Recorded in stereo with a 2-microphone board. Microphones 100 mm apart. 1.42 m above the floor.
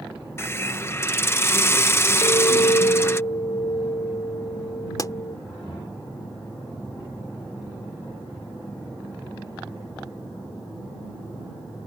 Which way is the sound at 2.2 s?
75° left (ahead or behind).